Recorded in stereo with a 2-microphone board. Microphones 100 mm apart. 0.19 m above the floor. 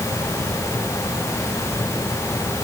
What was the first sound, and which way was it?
Only background noise.